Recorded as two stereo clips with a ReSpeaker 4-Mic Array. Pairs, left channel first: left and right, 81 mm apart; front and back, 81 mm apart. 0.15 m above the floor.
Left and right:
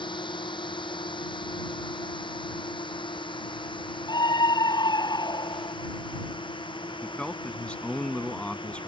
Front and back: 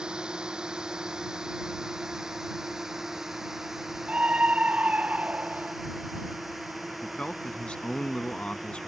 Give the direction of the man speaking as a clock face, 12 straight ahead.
10 o'clock.